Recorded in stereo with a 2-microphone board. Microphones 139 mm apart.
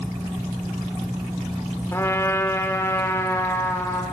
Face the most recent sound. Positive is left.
turn(degrees=20)  # may be behind; listen again after turning